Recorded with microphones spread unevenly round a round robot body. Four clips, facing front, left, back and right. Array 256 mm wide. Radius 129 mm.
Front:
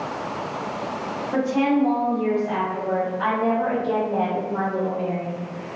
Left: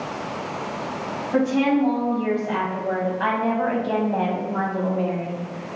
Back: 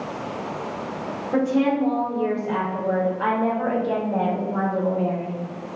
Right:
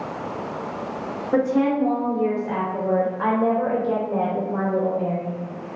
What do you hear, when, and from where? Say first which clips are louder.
1.3 s a woman speaking: even, even; 85° right, 2.5 m